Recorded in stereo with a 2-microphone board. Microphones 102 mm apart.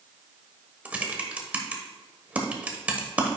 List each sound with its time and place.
0.8 s typing on a keyboard: 15° right (ahead or behind), 0.9 m